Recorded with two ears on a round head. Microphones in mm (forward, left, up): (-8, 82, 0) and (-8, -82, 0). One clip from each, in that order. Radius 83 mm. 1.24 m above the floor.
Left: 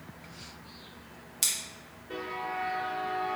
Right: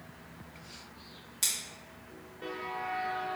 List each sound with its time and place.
1.4 s scissors: 15° left (ahead or behind), 0.9 m